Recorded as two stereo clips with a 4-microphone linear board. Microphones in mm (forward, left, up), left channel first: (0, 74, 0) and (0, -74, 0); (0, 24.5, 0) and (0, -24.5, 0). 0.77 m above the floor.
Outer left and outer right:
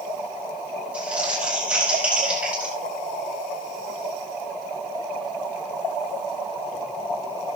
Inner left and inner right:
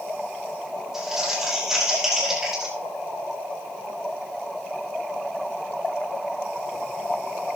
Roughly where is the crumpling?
Centre.